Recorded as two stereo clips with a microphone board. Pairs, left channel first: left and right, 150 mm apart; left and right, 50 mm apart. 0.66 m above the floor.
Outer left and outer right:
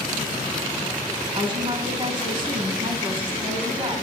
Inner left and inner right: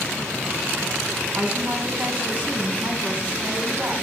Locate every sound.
1.4 s a woman speaking: 35° right (ahead or behind), 5 m